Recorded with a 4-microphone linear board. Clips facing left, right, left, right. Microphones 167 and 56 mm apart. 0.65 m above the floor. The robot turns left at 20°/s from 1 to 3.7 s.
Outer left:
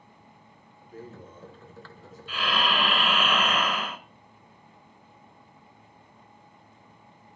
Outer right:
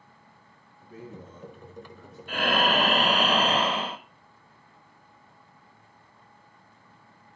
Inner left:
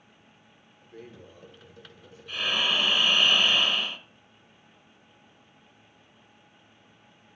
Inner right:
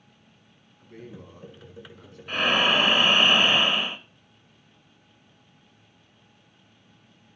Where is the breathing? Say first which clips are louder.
Outer right 4 dB, inner right 6 dB; 50° right (ahead or behind), 0.6 m; by 4.0 s 30° right (ahead or behind), 0.6 m.